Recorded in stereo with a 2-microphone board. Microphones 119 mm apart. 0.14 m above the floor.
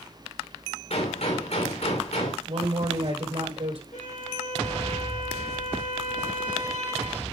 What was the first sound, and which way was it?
A gunshot, 65° left (ahead or behind).